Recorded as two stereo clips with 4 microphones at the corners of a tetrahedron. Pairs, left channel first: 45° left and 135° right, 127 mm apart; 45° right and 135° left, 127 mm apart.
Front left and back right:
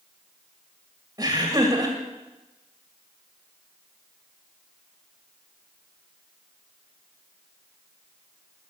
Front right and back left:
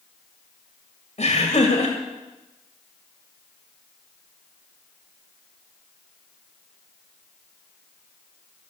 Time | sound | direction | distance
1.2 | laughter | 70° right | 2 m